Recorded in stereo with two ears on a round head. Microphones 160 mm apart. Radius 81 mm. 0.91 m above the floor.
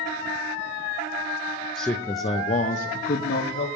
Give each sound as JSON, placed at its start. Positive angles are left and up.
{"t": 1.8, "sound": "a man speaking", "side_deg": 0, "distance_m": 0.7}